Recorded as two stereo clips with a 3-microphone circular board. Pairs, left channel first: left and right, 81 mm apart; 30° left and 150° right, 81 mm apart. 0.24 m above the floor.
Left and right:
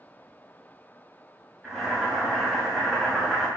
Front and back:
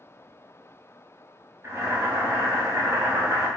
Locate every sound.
1.6 s boiling: 165° right, 1.1 m